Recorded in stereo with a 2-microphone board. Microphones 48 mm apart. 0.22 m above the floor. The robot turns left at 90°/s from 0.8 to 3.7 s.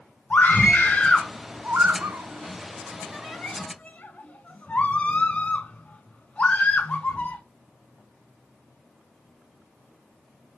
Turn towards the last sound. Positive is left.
turn(degrees=30)  # may be behind; listen again after turning